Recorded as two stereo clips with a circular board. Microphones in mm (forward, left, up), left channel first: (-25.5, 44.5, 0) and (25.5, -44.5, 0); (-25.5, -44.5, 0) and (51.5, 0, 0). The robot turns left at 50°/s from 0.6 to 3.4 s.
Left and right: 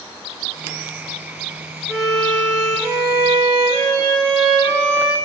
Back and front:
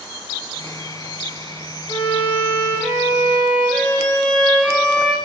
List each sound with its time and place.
1.9 s a violin: 145° right, 0.9 m; by 5.2 s 140° left, 0.9 m